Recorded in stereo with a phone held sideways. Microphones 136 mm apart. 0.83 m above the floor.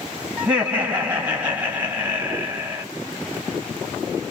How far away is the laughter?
About 1.6 m.